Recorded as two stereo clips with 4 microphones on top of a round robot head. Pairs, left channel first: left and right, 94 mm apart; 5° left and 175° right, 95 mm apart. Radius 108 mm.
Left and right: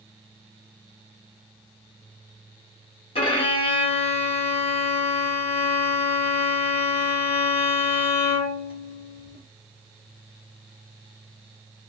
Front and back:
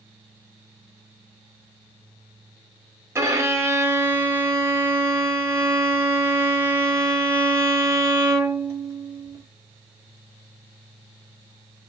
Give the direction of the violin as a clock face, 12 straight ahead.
8 o'clock.